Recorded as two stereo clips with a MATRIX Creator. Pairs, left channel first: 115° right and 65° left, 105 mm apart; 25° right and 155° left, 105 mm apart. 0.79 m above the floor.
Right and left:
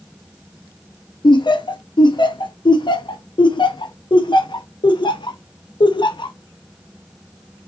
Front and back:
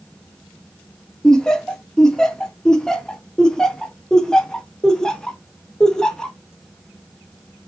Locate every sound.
1.2 s laughter: 105° right, 0.5 m